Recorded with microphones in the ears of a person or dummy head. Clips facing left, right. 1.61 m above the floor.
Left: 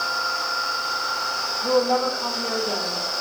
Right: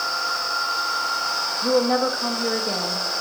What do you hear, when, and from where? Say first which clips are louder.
1.6 s a woman speaking: right 1 dB; 25° right (ahead or behind), 2 m